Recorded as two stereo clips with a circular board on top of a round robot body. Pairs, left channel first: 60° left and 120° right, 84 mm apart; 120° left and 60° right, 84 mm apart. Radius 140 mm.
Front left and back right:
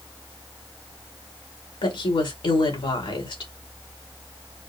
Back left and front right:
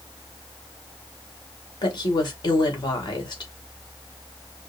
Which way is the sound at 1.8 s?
80° left.